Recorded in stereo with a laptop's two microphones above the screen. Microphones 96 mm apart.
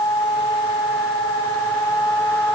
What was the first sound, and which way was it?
Only background noise.